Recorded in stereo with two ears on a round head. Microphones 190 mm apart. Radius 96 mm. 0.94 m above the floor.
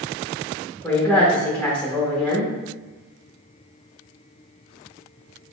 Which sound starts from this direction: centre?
A woman speaking, at 0.8 s.